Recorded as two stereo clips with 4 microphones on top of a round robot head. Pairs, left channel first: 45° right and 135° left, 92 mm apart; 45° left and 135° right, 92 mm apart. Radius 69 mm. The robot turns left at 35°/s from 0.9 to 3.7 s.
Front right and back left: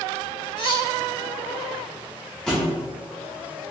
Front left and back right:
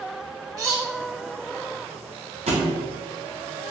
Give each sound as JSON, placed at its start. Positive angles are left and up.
{"t": 0.6, "sound": "cutlery clinking", "azimuth_deg": -80, "distance_m": 1.0}
{"t": 2.5, "sound": "a thud", "azimuth_deg": -130, "distance_m": 0.6}